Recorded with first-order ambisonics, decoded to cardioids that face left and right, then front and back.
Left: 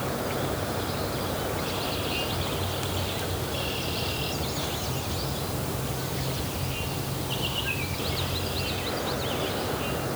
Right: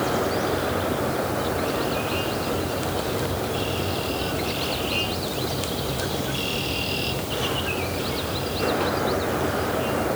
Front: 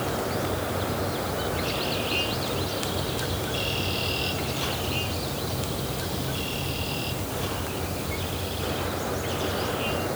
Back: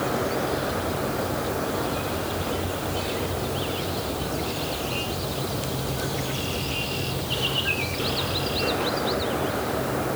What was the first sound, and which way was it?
Only background noise.